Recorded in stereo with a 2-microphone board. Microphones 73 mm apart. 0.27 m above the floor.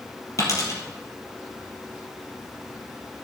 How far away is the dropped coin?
About 2.5 m.